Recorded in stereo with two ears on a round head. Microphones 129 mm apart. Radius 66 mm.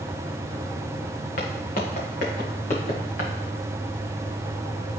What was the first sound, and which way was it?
Footsteps, 60° left (ahead or behind).